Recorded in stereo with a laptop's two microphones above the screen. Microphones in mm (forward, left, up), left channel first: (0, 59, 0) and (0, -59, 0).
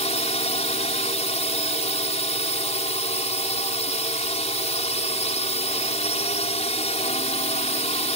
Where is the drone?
65° left (ahead or behind).